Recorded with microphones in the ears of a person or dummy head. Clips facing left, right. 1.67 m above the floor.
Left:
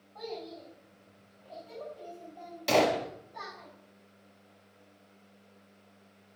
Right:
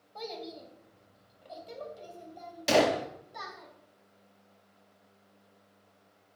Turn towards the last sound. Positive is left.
turn(degrees=-10)  # may be behind; listen again after turning